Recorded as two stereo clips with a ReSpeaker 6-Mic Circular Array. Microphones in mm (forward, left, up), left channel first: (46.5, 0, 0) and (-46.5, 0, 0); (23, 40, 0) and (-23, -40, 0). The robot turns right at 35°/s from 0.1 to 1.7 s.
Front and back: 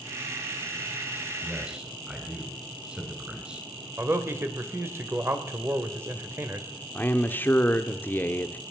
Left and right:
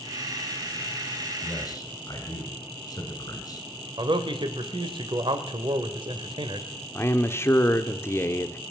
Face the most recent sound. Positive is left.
turn(degrees=40)